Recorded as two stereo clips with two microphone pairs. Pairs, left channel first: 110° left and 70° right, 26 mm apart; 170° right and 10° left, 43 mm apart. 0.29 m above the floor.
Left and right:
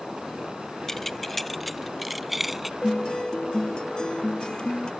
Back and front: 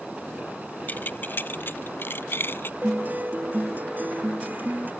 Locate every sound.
0.9 s keys jangling: straight behind; by 2.7 s 150° right
2.8 s a guitar: 55° left